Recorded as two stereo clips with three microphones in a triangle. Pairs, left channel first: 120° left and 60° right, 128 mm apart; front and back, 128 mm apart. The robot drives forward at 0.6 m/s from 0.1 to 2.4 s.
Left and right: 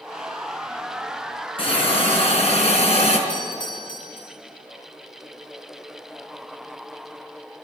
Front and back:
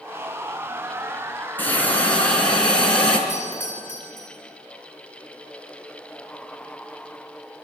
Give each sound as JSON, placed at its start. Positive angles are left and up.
{"t": 1.6, "sound": "a hiss", "azimuth_deg": 75, "distance_m": 4.0}
{"t": 3.3, "sound": "a doorbell", "azimuth_deg": 75, "distance_m": 5.5}